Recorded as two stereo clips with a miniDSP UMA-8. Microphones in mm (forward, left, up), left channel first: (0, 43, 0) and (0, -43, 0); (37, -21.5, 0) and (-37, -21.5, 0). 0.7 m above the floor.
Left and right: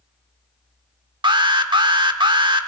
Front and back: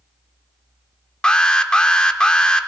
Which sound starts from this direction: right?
An alarm, at 1.2 s.